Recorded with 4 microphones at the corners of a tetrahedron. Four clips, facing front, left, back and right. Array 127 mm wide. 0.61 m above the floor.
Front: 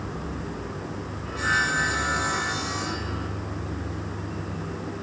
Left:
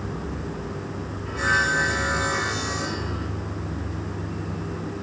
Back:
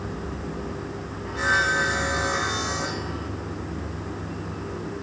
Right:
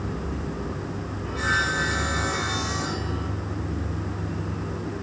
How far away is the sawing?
About 4 m.